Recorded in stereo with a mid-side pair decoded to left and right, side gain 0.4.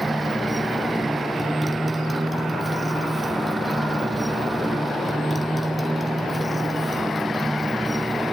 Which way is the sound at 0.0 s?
15° right.